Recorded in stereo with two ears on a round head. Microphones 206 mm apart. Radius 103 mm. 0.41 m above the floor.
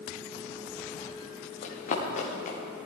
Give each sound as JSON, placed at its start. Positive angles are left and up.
{"t": 1.6, "sound": "running footsteps", "side_deg": 35, "distance_m": 3.5}